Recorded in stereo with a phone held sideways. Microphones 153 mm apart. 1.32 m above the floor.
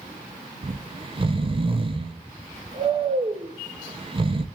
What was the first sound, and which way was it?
Snoring, 35° right (ahead or behind).